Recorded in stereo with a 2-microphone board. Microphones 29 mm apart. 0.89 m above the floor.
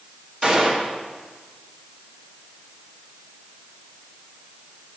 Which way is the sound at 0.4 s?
35° right (ahead or behind).